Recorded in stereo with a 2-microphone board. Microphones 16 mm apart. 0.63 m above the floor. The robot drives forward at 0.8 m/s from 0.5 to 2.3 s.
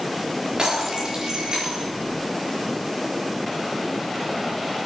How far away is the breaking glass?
About 7 m.